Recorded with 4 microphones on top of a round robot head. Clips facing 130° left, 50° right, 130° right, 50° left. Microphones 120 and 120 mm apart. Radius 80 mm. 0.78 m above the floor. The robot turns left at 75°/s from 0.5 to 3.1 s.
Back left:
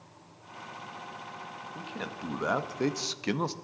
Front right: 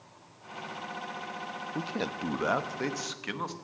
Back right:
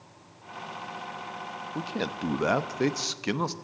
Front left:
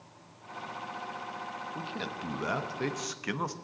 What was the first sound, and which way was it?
A man speaking, 80° right.